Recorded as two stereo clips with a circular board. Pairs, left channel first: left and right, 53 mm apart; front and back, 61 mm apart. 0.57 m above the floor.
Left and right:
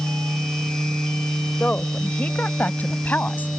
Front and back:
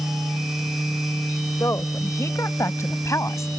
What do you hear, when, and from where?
1.6 s a woman speaking: 30° left; by 3.5 s 35° left